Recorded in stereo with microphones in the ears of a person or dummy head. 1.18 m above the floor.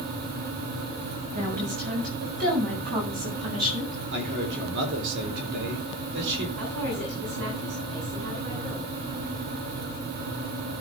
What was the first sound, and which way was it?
A woman speaking, 50° right (ahead or behind).